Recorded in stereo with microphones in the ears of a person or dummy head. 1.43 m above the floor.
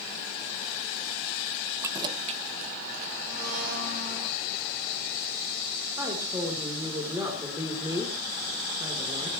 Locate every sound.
1.8 s keys jangling: 10° right (ahead or behind), 0.6 m; by 3.1 s 50° right (ahead or behind), 1.8 m
3.3 s a blender: 50° right (ahead or behind), 5.5 m
6.0 s a woman speaking: 15° right (ahead or behind), 4 m